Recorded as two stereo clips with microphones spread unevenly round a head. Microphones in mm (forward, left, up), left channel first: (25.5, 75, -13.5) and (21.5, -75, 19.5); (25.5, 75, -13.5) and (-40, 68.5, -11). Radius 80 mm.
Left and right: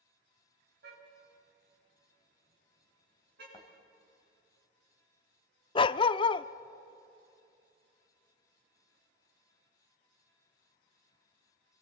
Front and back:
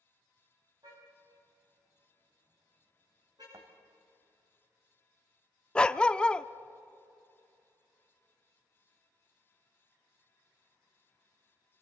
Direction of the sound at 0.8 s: 120° right.